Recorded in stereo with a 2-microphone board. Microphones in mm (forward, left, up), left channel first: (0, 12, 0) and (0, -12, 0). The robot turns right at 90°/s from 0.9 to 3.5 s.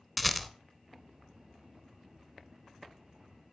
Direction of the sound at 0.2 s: Centre (ahead or behind).